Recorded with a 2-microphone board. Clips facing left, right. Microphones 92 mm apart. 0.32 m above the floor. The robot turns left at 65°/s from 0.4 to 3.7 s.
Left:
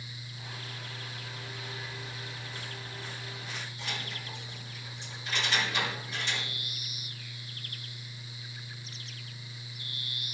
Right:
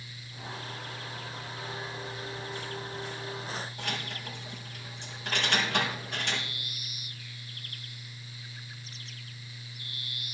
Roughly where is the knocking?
I don't hear knocking.